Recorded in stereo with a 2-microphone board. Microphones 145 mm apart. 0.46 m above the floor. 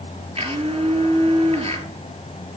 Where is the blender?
40° right (ahead or behind), 5.5 m.